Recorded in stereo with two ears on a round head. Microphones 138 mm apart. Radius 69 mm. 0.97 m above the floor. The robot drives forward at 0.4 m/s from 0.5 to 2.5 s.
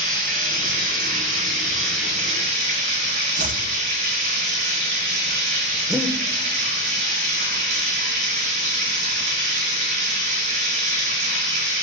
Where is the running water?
55° right (ahead or behind), 5 m; by 11.8 s 50° right (ahead or behind), 5.5 m.